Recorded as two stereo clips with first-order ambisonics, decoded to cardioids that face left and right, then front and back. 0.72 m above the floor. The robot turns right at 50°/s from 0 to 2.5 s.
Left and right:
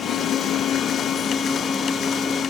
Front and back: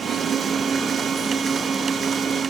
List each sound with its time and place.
Only background noise.